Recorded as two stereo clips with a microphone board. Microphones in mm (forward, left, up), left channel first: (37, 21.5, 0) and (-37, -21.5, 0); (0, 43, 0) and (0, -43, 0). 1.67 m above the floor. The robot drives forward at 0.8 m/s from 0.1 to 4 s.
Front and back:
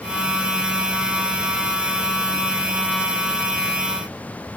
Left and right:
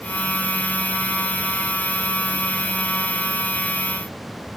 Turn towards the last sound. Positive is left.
No sound to turn to.